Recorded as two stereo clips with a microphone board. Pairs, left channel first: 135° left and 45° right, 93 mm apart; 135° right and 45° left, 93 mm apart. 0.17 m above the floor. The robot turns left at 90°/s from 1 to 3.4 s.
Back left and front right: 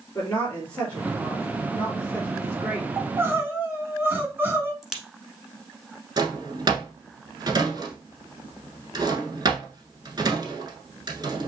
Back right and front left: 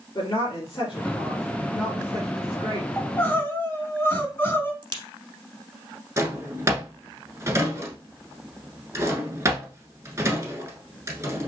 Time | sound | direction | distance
0.1 | a woman speaking | 160° right | 3 m
3.0 | crying | 55° right | 1.1 m
4.8 | a crack | 40° left | 1.0 m
6.2 | a drawer | 10° right | 1.1 m